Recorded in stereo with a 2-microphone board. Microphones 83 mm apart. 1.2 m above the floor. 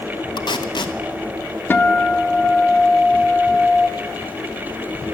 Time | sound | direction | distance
0.4 | tape being pulled | 70° left (ahead or behind) | 1.0 m
1.7 | a guitar | 25° left (ahead or behind) | 0.6 m